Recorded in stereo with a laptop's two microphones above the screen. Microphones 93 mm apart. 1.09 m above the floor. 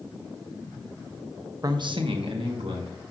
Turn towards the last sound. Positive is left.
turn(degrees=-80)